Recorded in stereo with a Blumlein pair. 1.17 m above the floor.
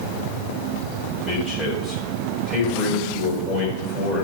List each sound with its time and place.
1.2 s a man speaking: straight ahead, 6 m